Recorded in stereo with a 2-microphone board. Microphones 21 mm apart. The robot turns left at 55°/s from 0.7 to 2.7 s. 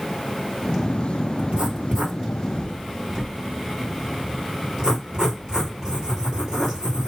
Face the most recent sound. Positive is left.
turn(degrees=-40)  # may be behind; listen again after turning